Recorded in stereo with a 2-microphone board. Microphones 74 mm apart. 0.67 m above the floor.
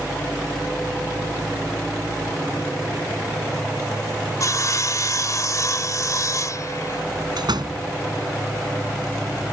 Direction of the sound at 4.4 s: 50° left (ahead or behind).